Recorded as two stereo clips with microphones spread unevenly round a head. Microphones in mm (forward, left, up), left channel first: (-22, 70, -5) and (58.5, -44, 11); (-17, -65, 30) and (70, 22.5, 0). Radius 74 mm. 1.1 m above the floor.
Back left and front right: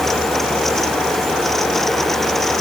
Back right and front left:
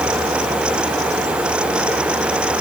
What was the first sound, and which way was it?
Only background noise.